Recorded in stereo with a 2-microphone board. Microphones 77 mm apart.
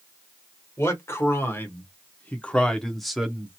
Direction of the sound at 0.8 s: 35° left (ahead or behind).